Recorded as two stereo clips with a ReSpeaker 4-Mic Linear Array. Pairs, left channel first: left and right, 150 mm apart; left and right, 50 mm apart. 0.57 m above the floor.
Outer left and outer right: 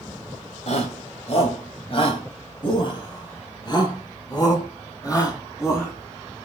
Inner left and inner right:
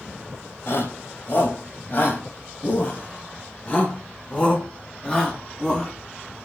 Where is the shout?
50° left (ahead or behind), 3 m; by 5.9 s 20° left (ahead or behind), 5 m.